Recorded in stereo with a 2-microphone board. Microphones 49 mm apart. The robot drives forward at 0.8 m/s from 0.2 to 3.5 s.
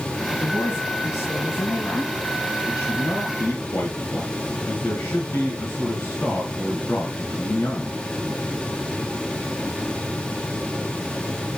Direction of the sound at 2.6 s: 75° left (ahead or behind).